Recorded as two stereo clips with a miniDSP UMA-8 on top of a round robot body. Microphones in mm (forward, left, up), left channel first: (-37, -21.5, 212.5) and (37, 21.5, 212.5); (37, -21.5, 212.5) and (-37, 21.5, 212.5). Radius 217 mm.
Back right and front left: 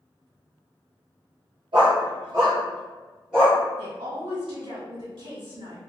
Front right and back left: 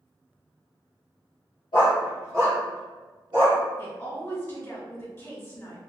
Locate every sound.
1.7 s a dog barking: 5° left, 1.0 m; by 3.6 s 120° left, 1.1 m
3.8 s a woman speaking: 30° left, 1.8 m